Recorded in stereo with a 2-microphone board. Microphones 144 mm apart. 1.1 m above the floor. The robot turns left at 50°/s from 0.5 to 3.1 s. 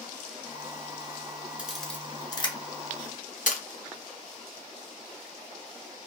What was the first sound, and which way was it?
A camera shutter, 10° right (ahead or behind).